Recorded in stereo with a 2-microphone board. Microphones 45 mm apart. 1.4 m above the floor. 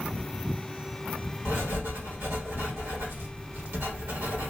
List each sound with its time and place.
1.4 s writing: 60° right (ahead or behind), 1.4 m